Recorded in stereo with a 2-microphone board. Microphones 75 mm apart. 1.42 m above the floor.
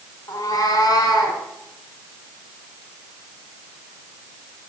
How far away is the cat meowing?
About 1.9 m.